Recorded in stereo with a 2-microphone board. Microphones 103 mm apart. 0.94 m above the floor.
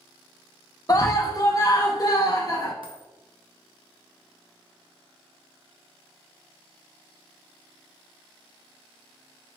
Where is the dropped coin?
55° right (ahead or behind), 0.5 m.